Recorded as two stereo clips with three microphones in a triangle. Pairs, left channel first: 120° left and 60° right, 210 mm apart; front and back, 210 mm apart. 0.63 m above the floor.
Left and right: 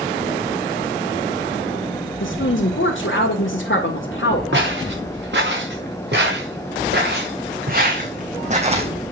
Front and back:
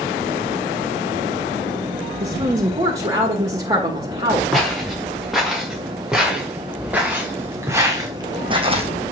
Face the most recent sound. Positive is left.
turn(degrees=-120)